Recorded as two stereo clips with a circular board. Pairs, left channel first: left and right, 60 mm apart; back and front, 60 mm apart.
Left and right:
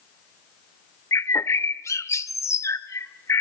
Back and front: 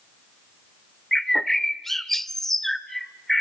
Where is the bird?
95° left, 0.8 m.